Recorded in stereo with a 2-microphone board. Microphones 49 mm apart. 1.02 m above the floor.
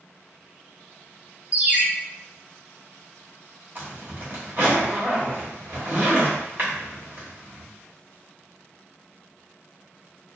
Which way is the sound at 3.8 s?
45° right (ahead or behind).